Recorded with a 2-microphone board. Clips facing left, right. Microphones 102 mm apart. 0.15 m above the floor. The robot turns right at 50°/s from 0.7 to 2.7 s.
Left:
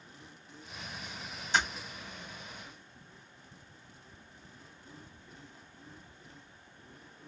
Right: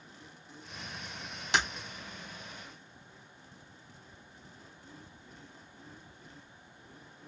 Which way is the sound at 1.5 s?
80° right.